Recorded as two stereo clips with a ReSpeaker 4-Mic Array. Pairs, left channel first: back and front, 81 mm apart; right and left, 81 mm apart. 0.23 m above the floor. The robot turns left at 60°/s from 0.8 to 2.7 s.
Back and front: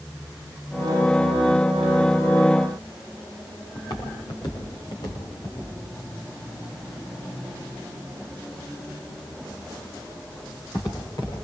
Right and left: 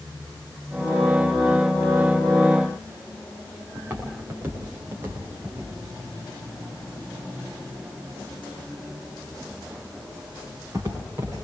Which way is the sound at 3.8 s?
155° left.